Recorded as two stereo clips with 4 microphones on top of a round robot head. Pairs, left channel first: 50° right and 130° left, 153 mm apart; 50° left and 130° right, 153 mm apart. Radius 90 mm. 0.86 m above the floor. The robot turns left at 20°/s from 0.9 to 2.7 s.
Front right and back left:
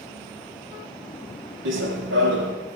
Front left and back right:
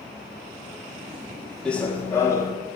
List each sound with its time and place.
1.6 s running footsteps: 130° left, 1.8 m; by 2.5 s 115° left, 1.8 m